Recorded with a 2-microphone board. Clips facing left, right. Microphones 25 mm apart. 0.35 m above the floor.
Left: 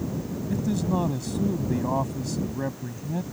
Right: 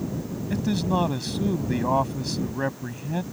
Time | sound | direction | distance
0.5 | a man speaking | 50° right (ahead or behind) | ?